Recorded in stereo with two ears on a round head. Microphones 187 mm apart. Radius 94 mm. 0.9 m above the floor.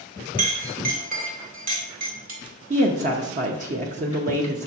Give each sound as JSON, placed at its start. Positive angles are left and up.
{"t": 0.4, "sound": "a clink", "side_deg": -45, "distance_m": 1.9}
{"t": 2.7, "sound": "a woman speaking", "side_deg": -40, "distance_m": 0.7}